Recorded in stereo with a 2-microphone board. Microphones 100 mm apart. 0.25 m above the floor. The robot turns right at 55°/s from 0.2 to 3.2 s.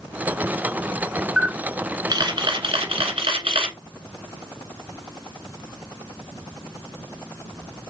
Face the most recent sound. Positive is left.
turn(degrees=-75)